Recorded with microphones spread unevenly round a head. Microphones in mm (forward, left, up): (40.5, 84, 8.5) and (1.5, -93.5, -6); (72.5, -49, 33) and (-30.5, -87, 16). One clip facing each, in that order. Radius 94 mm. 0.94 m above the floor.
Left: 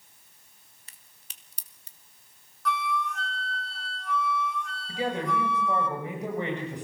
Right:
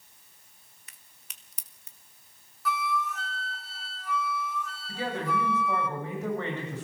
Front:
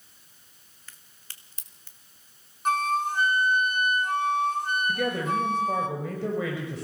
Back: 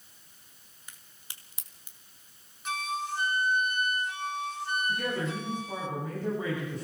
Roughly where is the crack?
Behind left.